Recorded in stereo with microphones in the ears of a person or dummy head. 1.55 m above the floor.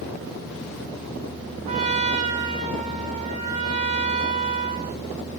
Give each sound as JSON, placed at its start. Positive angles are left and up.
{"t": 1.6, "sound": "a trumpet", "side_deg": -40, "distance_m": 0.9}